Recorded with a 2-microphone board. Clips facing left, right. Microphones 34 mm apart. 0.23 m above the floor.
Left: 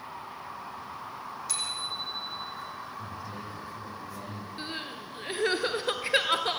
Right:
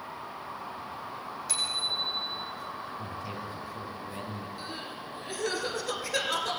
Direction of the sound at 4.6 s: 35° left (ahead or behind).